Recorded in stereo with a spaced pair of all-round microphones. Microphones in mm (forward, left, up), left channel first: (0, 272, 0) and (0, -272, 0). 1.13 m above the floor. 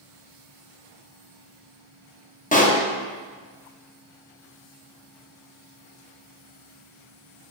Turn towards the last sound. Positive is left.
turn(degrees=15)  # may be behind; listen again after turning